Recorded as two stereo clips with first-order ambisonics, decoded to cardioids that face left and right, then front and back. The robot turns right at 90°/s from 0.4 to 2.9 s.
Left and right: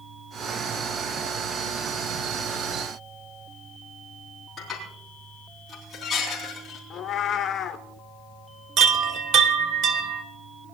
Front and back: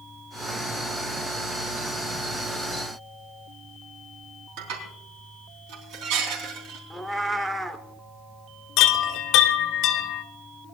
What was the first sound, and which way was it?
Dishes clattering, 170° left.